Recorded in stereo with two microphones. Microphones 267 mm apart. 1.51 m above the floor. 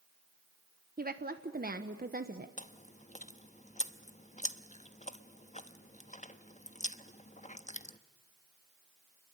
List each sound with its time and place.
1.0 s a woman speaking: 35° right (ahead or behind), 1.1 m
2.6 s chewing: 25° left (ahead or behind), 0.9 m